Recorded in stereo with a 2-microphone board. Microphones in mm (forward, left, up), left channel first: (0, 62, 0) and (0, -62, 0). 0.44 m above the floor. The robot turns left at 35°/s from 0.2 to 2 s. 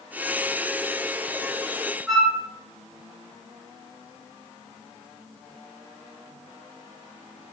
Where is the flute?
5° left (ahead or behind), 3.5 m.